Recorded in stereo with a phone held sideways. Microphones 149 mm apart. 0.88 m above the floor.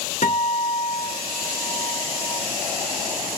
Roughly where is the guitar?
Left.